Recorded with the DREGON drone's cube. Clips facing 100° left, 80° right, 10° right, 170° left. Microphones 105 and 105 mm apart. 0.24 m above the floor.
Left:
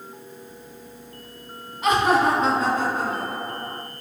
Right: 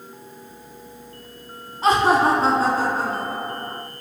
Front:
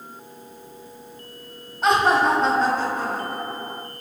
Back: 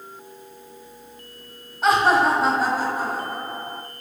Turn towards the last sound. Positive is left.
turn(degrees=-120)